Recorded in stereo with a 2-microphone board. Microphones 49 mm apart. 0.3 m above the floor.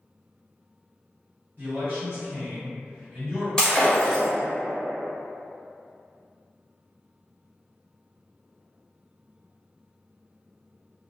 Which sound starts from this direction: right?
A man speaking, at 1.6 s.